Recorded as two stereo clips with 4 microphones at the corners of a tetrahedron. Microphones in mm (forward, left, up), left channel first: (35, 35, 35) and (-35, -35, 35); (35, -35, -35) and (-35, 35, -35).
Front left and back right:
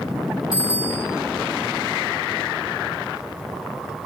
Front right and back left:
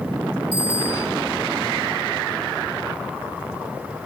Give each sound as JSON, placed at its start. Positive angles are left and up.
{"t": 0.5, "sound": "a bicycle bell", "azimuth_deg": 140, "distance_m": 7.5}